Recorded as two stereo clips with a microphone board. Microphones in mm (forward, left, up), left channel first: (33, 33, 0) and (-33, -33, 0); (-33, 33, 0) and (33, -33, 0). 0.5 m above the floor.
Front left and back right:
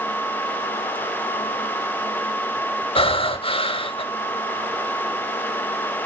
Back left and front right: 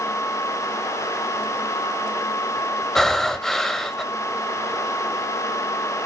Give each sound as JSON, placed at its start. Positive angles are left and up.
{"t": 3.0, "sound": "breathing", "azimuth_deg": 50, "distance_m": 1.0}